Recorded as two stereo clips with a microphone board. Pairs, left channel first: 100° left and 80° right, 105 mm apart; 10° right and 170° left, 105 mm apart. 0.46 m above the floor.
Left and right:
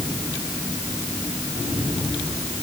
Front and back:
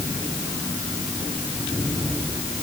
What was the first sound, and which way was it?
Only background noise.